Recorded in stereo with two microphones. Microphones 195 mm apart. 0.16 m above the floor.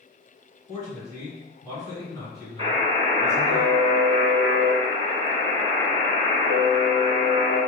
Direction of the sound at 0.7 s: 20° left (ahead or behind).